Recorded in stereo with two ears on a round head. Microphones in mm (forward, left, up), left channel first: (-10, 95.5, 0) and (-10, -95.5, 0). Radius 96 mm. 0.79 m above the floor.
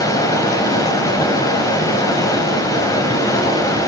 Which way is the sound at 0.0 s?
15° left (ahead or behind).